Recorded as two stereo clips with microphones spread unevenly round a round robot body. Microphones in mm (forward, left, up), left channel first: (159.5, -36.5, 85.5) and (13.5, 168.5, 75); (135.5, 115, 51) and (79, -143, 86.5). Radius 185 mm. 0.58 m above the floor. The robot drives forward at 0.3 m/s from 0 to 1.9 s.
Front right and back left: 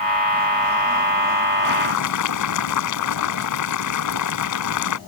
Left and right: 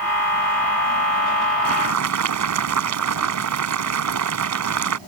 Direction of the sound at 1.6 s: 80° right.